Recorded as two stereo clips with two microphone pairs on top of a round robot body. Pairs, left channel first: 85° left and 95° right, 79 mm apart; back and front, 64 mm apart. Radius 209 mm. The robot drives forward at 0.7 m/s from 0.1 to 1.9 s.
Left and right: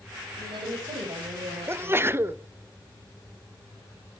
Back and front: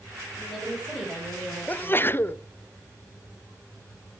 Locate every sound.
0.4 s a woman speaking: 95° right, 4.5 m; by 2.1 s 110° right, 4.5 m
1.7 s a sneeze: 125° right, 1.1 m; by 2.4 s 135° right, 1.1 m